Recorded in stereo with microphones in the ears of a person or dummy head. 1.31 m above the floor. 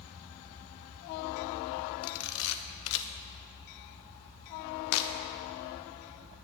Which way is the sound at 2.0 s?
80° left.